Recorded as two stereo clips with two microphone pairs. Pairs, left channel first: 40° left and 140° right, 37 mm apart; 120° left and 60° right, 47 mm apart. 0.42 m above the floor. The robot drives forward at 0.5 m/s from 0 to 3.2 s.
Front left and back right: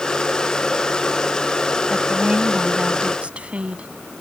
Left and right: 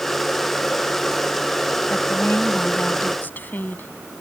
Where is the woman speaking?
160° left; by 3.9 s 165° left.